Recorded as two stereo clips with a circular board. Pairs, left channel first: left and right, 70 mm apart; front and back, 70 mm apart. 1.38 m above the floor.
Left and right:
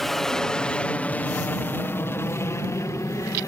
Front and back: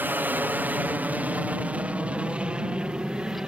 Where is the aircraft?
170° left; by 3.5 s 105° left.